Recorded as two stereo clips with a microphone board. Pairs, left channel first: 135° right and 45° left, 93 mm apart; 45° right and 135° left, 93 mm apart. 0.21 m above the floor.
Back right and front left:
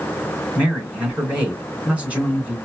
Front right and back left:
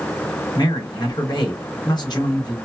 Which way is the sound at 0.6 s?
30° right.